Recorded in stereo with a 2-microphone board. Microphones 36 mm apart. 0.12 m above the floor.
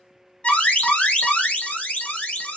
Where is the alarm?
35° left (ahead or behind), 1.1 m.